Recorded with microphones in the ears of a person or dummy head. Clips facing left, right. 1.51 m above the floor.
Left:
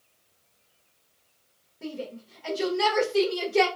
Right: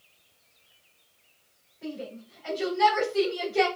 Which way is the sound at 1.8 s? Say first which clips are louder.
Left 1 dB; 70° left (ahead or behind).